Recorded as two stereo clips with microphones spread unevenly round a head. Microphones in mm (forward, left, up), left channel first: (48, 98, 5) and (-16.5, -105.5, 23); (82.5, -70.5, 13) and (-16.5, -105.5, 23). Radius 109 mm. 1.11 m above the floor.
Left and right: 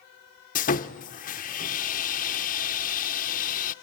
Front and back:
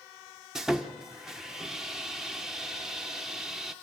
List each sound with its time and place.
0.6 s sawing: 110° left, 0.6 m